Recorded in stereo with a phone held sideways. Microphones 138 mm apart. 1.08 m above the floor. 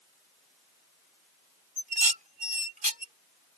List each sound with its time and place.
1.8 s dishes clattering: 70° right (ahead or behind)